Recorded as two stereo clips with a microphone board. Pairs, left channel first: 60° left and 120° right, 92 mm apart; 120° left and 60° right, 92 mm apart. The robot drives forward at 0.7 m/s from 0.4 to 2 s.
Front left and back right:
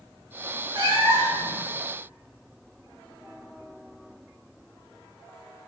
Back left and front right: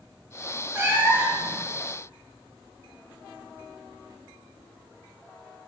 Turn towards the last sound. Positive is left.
turn(degrees=-155)